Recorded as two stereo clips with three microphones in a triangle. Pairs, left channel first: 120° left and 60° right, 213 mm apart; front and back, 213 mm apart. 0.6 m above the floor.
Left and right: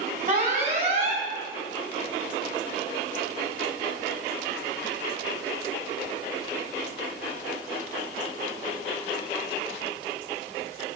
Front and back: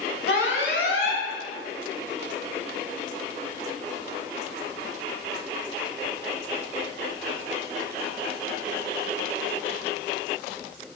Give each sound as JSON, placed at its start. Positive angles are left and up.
{"t": 0.3, "sound": "an alarm", "azimuth_deg": -10, "distance_m": 3.5}